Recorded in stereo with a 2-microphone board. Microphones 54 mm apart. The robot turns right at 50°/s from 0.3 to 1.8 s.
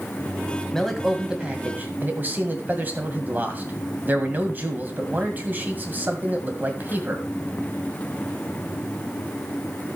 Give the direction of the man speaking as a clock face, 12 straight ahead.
6 o'clock.